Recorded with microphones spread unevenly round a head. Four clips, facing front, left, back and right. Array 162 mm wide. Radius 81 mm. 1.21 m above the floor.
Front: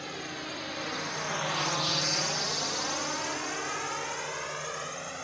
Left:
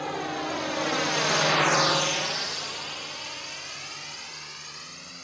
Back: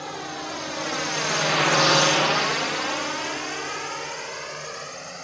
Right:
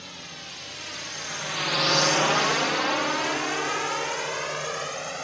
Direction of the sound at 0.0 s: 105° left.